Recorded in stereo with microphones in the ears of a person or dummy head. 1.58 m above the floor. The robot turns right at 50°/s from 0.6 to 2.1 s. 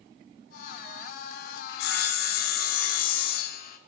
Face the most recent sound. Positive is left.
turn(degrees=55)  # may be behind; listen again after turning